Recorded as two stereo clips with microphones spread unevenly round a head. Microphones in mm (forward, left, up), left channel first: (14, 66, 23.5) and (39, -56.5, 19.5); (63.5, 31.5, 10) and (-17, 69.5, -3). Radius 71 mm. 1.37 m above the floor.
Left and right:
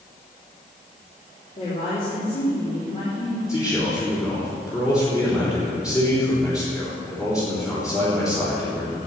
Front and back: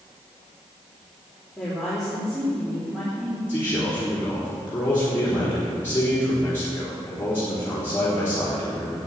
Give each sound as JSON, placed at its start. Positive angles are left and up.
{"t": 1.6, "sound": "a woman speaking", "azimuth_deg": 60, "distance_m": 3.5}
{"t": 3.5, "sound": "a man speaking", "azimuth_deg": 40, "distance_m": 4.0}